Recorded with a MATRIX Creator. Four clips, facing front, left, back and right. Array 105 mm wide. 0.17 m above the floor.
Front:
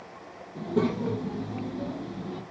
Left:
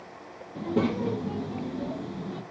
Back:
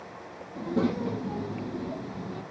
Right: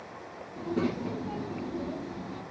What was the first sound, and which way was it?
A child speaking, 85° left.